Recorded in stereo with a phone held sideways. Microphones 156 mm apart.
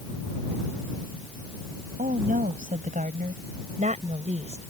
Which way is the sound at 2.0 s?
70° right (ahead or behind).